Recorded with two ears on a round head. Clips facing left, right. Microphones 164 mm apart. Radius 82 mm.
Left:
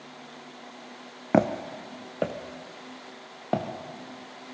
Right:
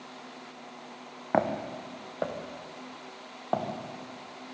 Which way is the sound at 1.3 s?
35° left (ahead or behind).